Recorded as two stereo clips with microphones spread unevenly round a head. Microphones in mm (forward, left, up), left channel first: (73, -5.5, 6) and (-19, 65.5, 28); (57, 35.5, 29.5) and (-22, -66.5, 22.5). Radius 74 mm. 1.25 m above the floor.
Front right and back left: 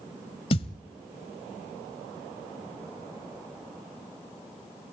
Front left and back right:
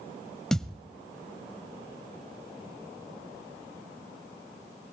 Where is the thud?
25° right, 1.2 m.